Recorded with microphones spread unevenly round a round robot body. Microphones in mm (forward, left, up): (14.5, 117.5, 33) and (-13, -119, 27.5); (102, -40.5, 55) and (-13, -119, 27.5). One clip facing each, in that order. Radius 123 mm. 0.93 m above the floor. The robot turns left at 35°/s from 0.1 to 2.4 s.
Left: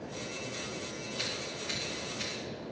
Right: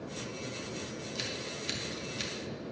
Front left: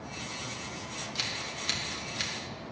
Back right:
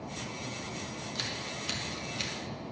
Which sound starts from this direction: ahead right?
Scissors, at 1.1 s.